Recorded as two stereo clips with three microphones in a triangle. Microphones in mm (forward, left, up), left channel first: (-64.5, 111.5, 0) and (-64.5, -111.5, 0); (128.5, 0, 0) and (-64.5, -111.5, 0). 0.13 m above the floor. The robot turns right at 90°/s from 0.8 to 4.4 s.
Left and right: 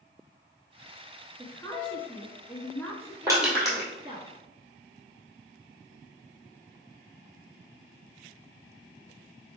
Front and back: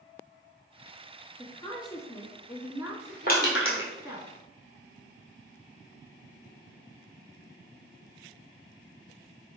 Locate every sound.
1.4 s a woman speaking: 25° left, 1.3 m; by 4.3 s 80° right, 1.3 m
3.3 s crushing: 20° right, 1.6 m; by 3.9 s 35° left, 1.6 m